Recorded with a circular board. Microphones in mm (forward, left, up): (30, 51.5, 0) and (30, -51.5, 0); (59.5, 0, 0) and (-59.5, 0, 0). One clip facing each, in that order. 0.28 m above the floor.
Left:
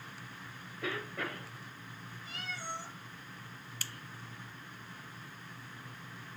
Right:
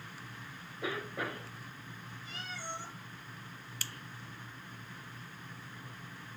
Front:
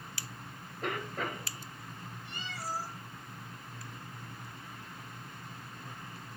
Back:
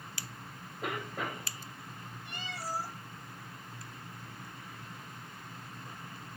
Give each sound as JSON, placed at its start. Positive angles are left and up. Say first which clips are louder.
{"t": 0.8, "sound": "a cough", "louder": "right 1 dB, front 1 dB", "azimuth_deg": -110, "distance_m": 0.9}
{"t": 2.2, "sound": "a cat meowing", "louder": "left 1 dB, even", "azimuth_deg": -155, "distance_m": 3.0}